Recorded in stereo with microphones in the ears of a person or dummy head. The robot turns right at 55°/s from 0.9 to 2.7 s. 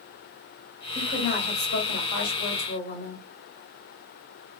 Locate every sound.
0.9 s a woman speaking: 35° left, 1.9 m; by 3.2 s 130° left, 1.9 m